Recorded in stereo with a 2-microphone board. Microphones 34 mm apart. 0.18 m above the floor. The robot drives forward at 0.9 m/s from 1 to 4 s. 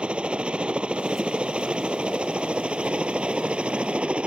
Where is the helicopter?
30° right (ahead or behind); by 4.3 s 35° right (ahead or behind).